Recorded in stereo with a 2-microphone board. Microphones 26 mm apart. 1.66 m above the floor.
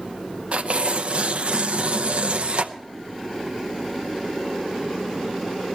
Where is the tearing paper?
55° right (ahead or behind), 0.6 m.